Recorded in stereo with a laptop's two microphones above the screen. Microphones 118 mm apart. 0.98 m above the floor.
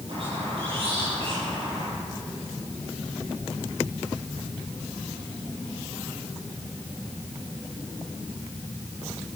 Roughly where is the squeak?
Right.